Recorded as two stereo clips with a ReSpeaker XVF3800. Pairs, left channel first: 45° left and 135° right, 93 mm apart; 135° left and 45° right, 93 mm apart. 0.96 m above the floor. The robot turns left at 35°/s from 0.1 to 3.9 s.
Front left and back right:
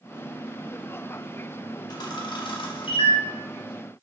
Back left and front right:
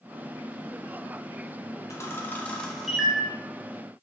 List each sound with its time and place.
1.9 s a camera shutter: 80° left, 0.5 m; by 3.2 s 35° left, 0.5 m